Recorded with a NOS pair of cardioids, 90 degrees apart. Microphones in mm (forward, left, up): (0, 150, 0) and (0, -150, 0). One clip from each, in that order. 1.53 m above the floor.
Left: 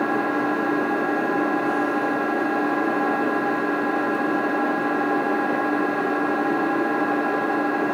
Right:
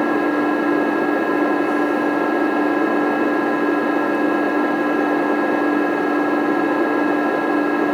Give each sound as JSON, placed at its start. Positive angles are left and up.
{"t": 0.0, "sound": "an engine running", "azimuth_deg": -30, "distance_m": 1.8}